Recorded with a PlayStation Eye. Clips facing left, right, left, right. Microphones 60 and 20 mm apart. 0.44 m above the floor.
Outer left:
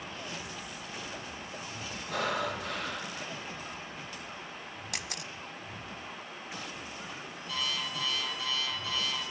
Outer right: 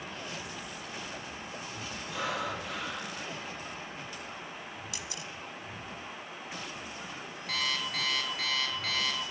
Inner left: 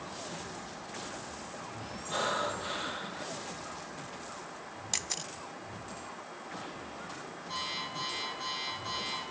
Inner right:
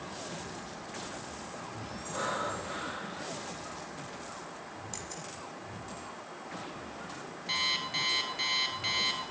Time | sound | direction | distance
2.1 | breathing | 55° left (ahead or behind) | 3.5 m
4.9 | a camera shutter | 60° left (ahead or behind) | 0.6 m
7.5 | an alarm clock | 70° right (ahead or behind) | 3.5 m